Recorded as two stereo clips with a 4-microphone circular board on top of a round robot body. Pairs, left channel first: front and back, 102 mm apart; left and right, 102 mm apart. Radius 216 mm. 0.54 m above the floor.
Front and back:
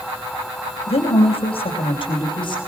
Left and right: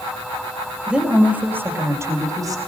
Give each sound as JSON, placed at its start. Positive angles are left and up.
{"t": 0.9, "sound": "a woman speaking", "azimuth_deg": -5, "distance_m": 3.5}